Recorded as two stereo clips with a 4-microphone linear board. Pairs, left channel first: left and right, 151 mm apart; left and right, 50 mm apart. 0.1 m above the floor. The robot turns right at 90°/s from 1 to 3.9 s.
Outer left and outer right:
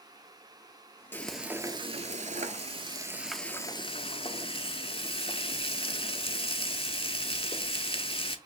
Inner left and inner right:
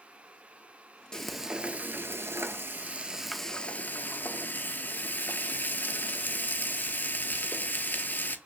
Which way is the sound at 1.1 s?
160° left.